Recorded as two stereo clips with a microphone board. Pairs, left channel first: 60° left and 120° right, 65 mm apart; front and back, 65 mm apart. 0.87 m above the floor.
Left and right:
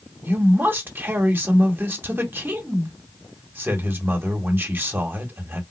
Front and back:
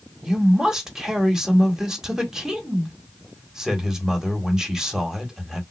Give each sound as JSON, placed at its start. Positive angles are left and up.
{"t": 0.2, "sound": "a man speaking", "azimuth_deg": -105, "distance_m": 1.1}